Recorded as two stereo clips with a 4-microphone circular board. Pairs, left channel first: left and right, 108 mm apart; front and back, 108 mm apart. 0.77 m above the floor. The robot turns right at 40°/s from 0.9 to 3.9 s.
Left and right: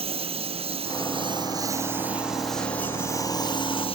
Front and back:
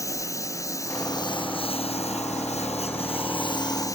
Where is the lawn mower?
60° right; by 4.0 s 60° left.